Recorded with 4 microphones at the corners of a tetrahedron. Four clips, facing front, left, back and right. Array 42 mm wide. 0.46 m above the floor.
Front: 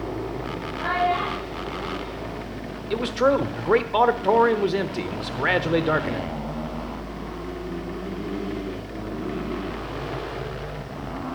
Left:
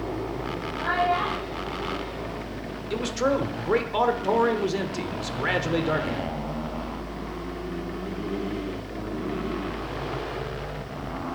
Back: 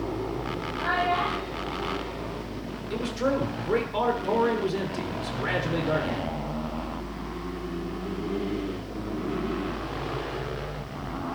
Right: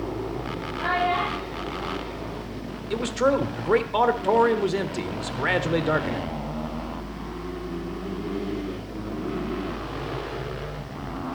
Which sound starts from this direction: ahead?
A man speaking, at 2.9 s.